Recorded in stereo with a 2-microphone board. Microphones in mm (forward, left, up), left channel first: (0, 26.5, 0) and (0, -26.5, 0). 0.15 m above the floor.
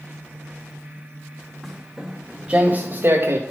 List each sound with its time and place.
1.6 s footsteps: centre (ahead or behind), 2 m; by 3.4 s 50° right (ahead or behind), 1.7 m